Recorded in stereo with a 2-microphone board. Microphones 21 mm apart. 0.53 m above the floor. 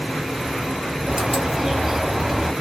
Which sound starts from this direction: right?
A bird, at 1.1 s.